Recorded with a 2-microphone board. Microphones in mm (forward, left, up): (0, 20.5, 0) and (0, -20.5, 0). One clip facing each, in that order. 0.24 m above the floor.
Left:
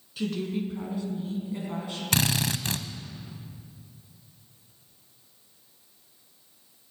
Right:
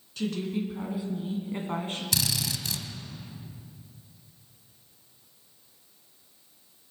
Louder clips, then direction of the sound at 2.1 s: Left 6 dB; 50° left (ahead or behind).